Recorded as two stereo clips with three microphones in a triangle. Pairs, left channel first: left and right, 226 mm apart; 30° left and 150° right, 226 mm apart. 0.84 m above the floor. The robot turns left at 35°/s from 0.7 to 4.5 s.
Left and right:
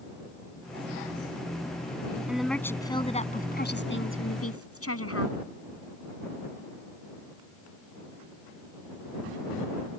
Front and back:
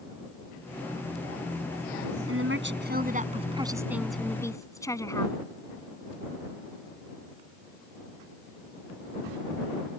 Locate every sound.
2.3 s a woman speaking: 175° right; by 5.4 s 105° left